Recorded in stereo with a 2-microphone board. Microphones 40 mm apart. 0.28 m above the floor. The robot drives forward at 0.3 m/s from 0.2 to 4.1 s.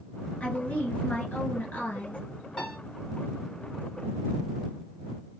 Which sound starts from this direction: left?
A woman speaking, at 0.4 s.